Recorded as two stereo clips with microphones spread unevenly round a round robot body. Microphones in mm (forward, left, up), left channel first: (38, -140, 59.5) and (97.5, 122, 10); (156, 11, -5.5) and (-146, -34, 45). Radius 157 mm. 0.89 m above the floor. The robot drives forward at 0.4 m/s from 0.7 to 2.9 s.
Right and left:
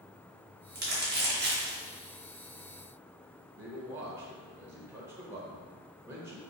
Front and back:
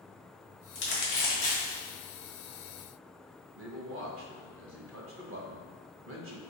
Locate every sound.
0.8 s crumpling: 45° left, 1.4 m; by 1.8 s 65° left, 1.2 m
3.5 s a man speaking: 145° left, 0.6 m